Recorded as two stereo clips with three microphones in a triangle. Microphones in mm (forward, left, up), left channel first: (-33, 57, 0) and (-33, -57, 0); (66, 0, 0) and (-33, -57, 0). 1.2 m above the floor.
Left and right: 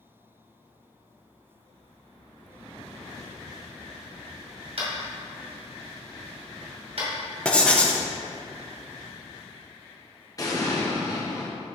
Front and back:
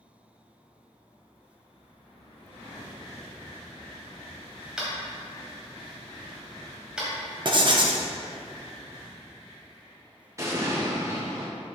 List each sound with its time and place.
4.8 s tapping: 65° right, 2.5 m
7.5 s writing: 170° left, 0.9 m
10.4 s an explosion: 150° left, 1.4 m